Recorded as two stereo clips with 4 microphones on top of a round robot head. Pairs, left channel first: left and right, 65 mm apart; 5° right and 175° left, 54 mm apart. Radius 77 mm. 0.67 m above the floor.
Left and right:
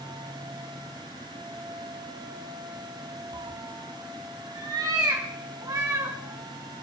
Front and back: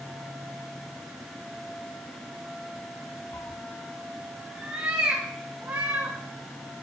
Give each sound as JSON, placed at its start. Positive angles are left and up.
{"t": 3.3, "sound": "a cat meowing", "azimuth_deg": -50, "distance_m": 0.7}